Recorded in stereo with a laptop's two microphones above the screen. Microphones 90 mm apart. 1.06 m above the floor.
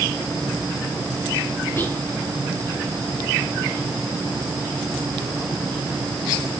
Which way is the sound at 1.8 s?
25° left (ahead or behind).